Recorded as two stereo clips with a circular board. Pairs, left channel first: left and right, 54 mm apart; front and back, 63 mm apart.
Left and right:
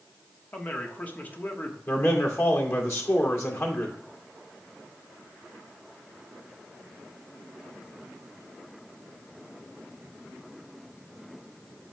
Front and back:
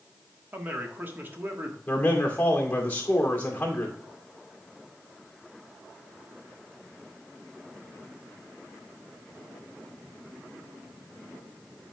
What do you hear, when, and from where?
0.5 s a man speaking: 140° left, 1.2 m
1.9 s a man speaking: 65° left, 2 m